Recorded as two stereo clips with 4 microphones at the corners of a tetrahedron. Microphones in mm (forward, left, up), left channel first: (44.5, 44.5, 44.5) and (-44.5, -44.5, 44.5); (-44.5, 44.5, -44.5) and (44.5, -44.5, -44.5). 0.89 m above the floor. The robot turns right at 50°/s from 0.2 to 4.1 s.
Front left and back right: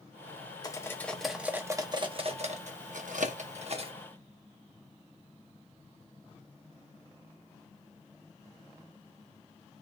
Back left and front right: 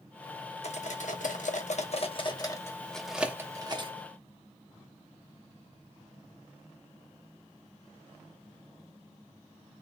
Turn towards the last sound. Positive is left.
turn(degrees=-85)